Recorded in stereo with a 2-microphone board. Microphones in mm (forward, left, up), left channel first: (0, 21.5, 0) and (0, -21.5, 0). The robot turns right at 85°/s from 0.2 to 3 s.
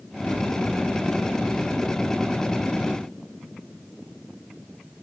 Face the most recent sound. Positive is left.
No sound to turn to.